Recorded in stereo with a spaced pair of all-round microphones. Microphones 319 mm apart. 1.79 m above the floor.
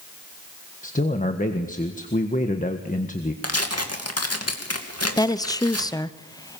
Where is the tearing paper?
55° left (ahead or behind), 2.5 m.